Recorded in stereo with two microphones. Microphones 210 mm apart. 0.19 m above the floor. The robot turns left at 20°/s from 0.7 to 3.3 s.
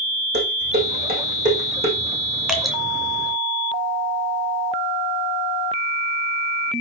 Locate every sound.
0.3 s dishes clattering: 55° right (ahead or behind), 6 m; by 2.0 s 30° right (ahead or behind), 6 m
2.5 s dripping: 5° right (ahead or behind), 2.5 m; by 2.8 s centre (ahead or behind), 2.5 m